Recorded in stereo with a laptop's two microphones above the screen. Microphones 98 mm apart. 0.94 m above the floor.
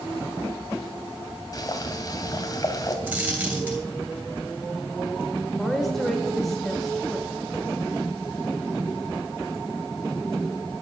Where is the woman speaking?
Centre (ahead or behind), 3 m.